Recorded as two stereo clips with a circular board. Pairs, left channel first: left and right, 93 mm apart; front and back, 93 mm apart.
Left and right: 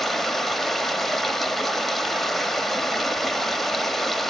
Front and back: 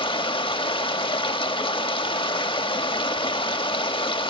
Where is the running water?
5° left, 1.0 m.